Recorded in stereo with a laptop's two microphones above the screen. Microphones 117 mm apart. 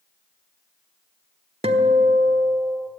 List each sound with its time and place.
1.6 s a guitar: 65° right (ahead or behind), 1.5 m